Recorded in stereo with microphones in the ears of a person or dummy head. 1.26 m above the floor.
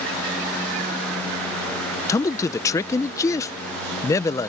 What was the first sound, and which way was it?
A man speaking, 15° left (ahead or behind).